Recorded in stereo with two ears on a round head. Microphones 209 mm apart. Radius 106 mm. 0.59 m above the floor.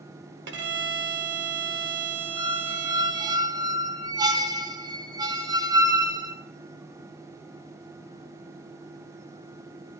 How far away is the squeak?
About 0.9 m.